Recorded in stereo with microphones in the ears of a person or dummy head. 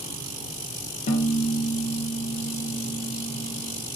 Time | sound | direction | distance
1.1 | a piano | 35° left (ahead or behind) | 0.5 m